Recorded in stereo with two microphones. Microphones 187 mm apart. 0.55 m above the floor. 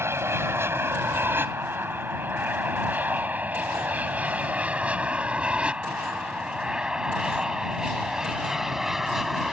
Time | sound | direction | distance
0.0 | an aircraft | 15° right (ahead or behind) | ?